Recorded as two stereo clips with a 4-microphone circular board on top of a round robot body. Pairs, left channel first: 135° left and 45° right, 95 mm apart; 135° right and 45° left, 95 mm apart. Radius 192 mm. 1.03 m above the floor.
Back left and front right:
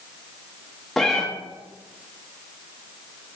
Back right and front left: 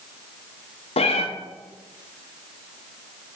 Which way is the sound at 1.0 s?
135° right.